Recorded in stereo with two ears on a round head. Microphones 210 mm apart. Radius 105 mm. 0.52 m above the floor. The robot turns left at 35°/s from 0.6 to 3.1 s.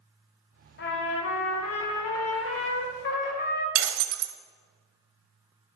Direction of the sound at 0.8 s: 130° left.